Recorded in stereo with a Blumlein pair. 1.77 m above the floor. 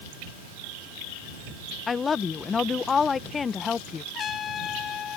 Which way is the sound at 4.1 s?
25° left.